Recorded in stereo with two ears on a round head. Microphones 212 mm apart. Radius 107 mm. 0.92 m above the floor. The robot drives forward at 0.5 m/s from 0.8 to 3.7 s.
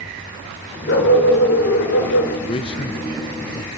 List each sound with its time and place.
0.9 s a dog barking: 45° left (ahead or behind), 4.5 m; by 2.3 s 55° left (ahead or behind), 4 m
2.5 s a man speaking: 25° left (ahead or behind), 0.7 m; by 3.7 s 20° left (ahead or behind), 0.8 m